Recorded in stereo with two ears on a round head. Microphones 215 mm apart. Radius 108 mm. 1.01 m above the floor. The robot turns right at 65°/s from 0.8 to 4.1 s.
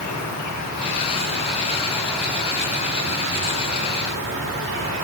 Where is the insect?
90° left, 1.4 m; by 5.0 s 55° right, 1.4 m.